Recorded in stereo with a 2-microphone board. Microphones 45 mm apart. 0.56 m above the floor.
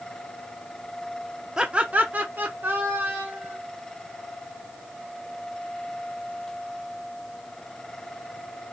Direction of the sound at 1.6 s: 15° right (ahead or behind).